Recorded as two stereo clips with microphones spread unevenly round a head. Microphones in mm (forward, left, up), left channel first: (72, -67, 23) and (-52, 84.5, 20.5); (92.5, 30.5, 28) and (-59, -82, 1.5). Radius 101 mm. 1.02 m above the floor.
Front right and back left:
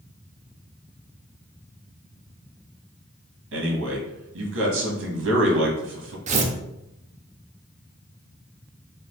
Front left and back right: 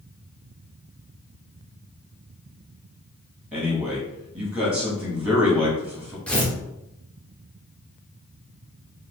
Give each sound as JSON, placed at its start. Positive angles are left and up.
{"t": 3.5, "sound": "a man speaking", "azimuth_deg": 135, "distance_m": 1.7}
{"t": 6.3, "sound": "tearing paper", "azimuth_deg": 105, "distance_m": 0.7}